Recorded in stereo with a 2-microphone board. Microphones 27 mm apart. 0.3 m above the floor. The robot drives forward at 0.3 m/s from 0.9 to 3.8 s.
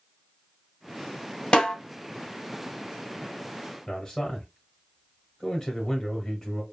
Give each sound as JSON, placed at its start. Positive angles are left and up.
{"t": 1.5, "sound": "a snare drum", "side_deg": 35, "distance_m": 1.3}
{"t": 3.9, "sound": "a man speaking", "side_deg": 20, "distance_m": 1.0}